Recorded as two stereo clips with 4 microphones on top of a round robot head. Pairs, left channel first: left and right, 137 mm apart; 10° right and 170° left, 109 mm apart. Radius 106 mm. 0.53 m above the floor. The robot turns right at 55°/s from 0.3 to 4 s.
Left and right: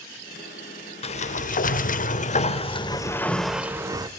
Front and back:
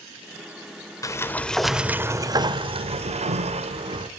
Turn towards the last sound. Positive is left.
turn(degrees=-150)